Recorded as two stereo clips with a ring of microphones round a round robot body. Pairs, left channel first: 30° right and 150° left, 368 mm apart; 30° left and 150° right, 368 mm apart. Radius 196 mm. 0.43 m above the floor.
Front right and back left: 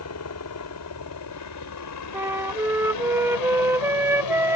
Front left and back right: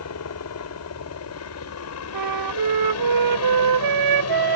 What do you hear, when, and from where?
0.0 s a helicopter: straight ahead; by 4.6 s 10° right
2.1 s a flute: 125° right